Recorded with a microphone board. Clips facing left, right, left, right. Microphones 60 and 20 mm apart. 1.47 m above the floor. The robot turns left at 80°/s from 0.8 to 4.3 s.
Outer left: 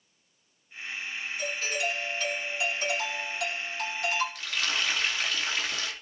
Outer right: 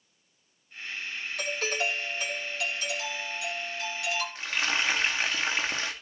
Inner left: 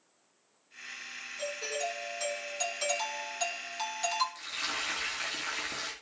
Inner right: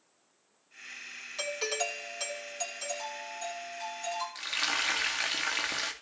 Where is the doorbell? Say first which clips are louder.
Outer right 2 dB, inner right 3 dB; 100° right, 2.5 m; by 4.2 s 30° left, 2.5 m.